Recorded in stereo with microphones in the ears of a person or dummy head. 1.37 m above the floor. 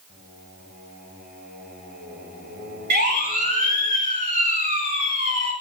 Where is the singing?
55° right (ahead or behind), 5.5 m.